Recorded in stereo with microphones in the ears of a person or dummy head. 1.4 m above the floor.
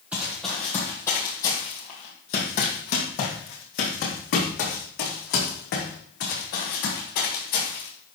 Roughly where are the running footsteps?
Centre.